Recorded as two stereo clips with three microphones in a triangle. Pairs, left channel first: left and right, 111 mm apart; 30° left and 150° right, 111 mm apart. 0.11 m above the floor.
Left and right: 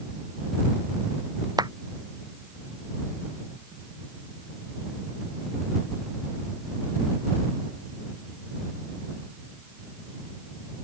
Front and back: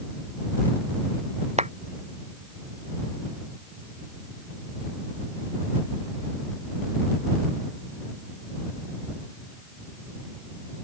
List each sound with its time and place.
1.6 s a clap: 145° right